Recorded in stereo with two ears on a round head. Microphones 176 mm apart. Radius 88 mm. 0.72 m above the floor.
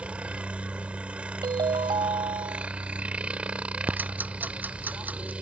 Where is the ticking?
10° right (ahead or behind).